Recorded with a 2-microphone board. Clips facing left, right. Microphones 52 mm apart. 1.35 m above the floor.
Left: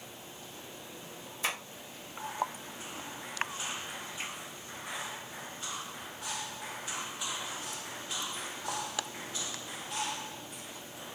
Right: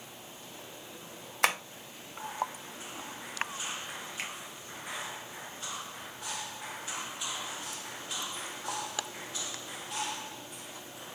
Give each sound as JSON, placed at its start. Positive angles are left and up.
{"t": 1.4, "sound": "tapping", "side_deg": -65, "distance_m": 0.5}
{"t": 4.2, "sound": "a finger snap", "side_deg": -80, "distance_m": 0.7}